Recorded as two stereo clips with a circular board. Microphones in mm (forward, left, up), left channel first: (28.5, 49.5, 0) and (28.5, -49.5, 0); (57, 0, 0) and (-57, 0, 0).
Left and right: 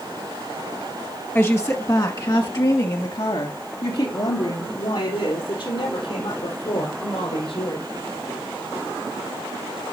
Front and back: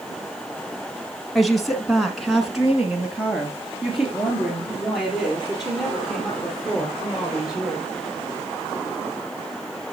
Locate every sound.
1.4 s a woman speaking: 90° left, 1.1 m